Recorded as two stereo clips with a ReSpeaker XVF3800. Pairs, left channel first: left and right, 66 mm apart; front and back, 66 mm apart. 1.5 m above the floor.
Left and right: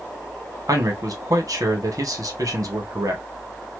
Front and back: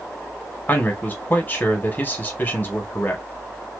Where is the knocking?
I don't hear knocking.